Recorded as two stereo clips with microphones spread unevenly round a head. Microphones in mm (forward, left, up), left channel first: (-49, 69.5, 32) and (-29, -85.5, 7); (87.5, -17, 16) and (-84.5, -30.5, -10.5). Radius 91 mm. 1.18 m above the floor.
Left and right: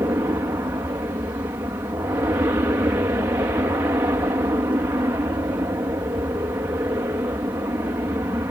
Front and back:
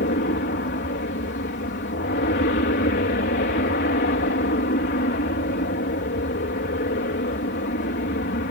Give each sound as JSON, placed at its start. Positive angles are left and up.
{"t": 0.0, "sound": "an aircraft", "azimuth_deg": -10}